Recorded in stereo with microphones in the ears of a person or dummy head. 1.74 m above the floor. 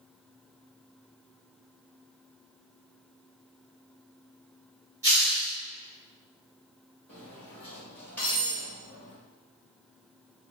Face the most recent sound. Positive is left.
turn(degrees=10)  # may be behind; listen again after turning